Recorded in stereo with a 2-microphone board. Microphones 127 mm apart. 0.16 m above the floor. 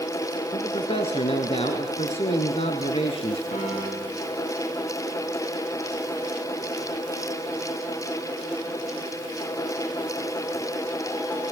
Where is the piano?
75° left (ahead or behind), 8.5 m.